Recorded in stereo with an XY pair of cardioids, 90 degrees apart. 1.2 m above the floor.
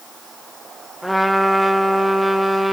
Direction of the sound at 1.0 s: Straight ahead.